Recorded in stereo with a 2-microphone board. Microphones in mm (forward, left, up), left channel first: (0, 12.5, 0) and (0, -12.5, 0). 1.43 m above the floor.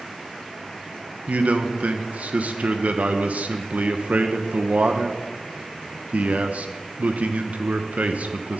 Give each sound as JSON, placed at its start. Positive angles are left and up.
{"t": 1.3, "sound": "a man speaking", "side_deg": -70, "distance_m": 1.0}